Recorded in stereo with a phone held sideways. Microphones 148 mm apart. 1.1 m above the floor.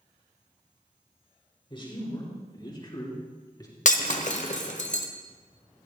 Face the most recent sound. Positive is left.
turn(degrees=55)  # may be behind; listen again after turning